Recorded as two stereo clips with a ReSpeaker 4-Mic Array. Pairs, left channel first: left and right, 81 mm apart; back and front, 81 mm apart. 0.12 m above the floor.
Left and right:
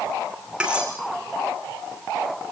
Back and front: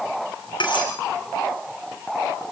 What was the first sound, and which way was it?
Cutlery clinking, 170° right.